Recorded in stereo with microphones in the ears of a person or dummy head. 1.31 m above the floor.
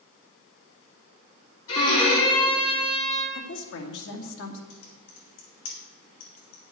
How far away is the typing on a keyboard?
About 4 m.